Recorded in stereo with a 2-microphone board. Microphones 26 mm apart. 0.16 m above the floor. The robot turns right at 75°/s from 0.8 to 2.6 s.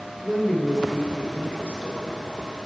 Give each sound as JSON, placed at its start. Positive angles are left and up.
{"t": 0.2, "sound": "a woman speaking", "azimuth_deg": 10, "distance_m": 2.0}